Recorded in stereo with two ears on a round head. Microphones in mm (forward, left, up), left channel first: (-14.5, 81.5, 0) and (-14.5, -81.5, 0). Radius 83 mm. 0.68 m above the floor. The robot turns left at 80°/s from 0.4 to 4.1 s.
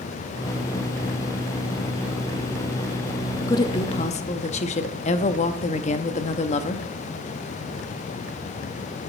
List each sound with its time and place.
3.5 s a woman speaking: 150° left, 0.8 m; by 6.9 s 100° left, 0.8 m